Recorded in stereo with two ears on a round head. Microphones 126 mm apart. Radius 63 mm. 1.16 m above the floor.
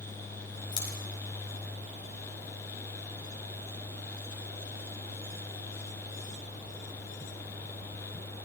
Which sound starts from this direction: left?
Scissors, at 0.7 s.